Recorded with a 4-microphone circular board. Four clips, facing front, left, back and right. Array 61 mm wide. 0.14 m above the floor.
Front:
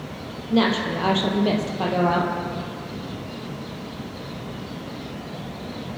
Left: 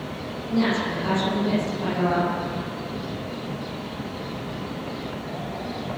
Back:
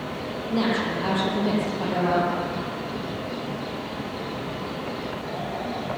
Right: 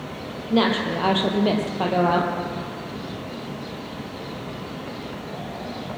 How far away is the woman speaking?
About 4 m.